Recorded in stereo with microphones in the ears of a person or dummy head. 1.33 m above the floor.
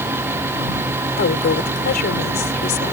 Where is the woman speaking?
60° left (ahead or behind).